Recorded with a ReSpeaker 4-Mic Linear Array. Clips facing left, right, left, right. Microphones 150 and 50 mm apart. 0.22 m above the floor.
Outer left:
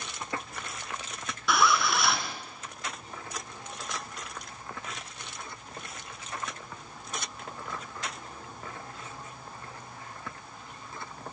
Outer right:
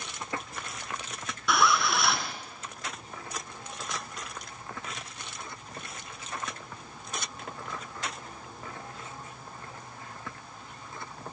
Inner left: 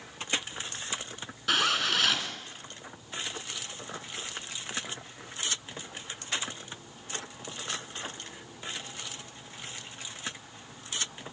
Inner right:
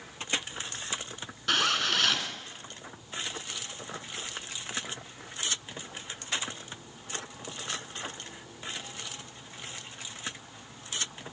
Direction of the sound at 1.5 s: Centre (ahead or behind).